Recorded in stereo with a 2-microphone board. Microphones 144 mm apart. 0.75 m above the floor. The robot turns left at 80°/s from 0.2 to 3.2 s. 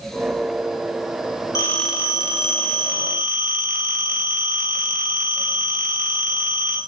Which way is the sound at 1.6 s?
25° left.